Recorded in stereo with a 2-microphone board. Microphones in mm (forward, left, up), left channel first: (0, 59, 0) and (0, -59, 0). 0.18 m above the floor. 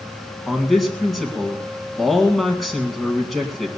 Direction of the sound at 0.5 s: Centre (ahead or behind).